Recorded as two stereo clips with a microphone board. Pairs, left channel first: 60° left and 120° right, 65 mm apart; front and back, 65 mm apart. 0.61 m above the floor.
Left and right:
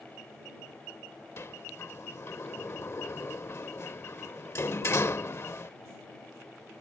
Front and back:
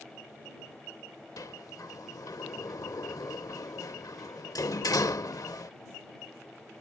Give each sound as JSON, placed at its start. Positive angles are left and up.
{"t": 1.4, "sound": "a sliding door", "azimuth_deg": 15}